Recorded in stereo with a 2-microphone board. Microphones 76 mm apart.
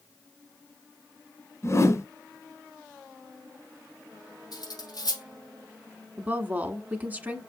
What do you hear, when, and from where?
1.6 s a whoosh: 40° left (ahead or behind), 1.0 m
4.5 s cutlery clinking: 60° left (ahead or behind), 3.5 m
6.2 s a woman speaking: 20° right (ahead or behind), 1.3 m